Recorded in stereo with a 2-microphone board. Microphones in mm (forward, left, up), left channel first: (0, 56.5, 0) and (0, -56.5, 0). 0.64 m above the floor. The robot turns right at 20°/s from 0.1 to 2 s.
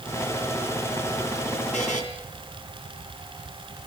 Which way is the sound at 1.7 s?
80° left.